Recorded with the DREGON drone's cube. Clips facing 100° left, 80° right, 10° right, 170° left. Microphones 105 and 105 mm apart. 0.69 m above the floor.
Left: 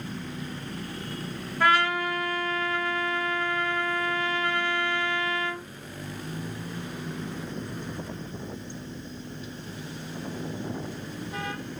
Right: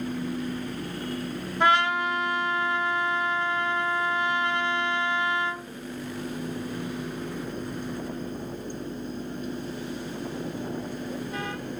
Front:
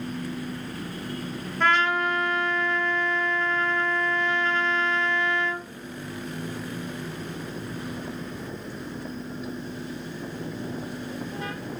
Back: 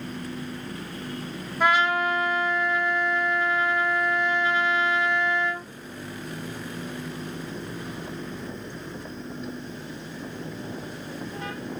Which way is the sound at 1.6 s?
125° right.